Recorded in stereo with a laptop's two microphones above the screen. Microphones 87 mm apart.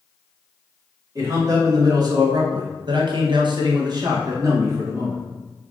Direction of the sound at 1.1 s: 40° right (ahead or behind).